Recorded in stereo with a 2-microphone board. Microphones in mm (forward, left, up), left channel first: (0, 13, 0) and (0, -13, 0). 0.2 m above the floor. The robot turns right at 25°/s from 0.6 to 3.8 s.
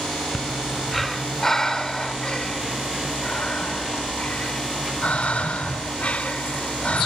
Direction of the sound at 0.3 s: Centre (ahead or behind).